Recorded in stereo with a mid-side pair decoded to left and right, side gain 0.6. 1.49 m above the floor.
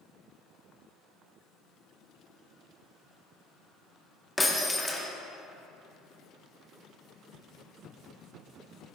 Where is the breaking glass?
10° left, 2 m.